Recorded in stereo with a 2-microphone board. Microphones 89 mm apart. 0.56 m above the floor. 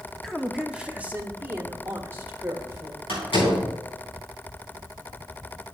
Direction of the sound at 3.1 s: 80° left.